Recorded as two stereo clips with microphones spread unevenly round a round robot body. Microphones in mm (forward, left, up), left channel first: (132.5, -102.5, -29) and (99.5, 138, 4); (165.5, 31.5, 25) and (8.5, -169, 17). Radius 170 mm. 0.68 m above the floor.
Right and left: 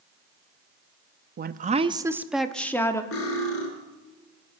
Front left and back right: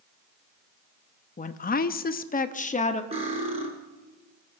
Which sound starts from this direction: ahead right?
Cutlery clinking, at 3.1 s.